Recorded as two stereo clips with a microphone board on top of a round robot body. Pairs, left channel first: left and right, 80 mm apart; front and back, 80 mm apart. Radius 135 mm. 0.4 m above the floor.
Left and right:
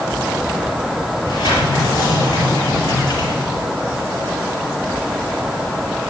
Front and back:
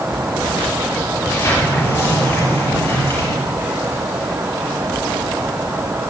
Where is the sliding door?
60° left, 5 m.